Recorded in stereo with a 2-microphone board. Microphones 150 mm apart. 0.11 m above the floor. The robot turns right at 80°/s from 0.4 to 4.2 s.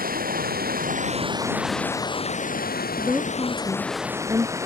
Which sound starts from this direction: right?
Running water, at 0.0 s.